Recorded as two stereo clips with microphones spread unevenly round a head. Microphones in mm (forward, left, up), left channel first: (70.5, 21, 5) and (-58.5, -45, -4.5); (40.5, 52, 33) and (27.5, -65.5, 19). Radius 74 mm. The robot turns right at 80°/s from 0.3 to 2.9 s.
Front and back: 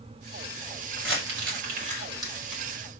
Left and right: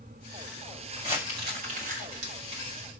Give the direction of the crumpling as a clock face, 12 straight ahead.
6 o'clock.